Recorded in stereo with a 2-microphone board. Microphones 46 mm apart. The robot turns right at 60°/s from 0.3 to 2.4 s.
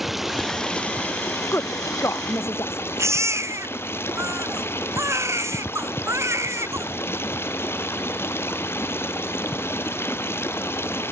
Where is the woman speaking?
60° left (ahead or behind); by 2.8 s 65° left (ahead or behind).